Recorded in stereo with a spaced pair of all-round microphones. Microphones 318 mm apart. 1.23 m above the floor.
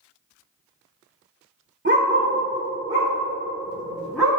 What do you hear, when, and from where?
1.9 s a dog barking: 35° right (ahead or behind), 1.9 m; by 4.3 s centre (ahead or behind), 4.5 m